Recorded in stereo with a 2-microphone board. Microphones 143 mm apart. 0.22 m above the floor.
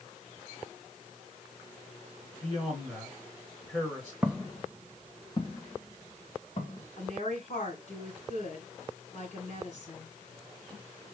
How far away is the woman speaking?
About 3 m.